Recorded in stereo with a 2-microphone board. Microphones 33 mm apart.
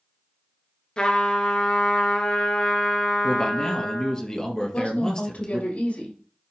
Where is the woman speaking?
45° left (ahead or behind), 5.5 m.